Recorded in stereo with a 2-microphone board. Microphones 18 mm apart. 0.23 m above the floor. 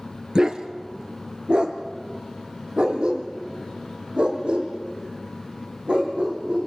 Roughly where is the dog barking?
Right.